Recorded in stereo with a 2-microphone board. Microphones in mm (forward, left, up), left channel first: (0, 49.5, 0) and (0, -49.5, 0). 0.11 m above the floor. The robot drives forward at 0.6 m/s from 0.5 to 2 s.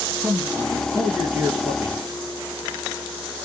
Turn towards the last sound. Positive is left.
turn(degrees=-25)  # may be behind; listen again after turning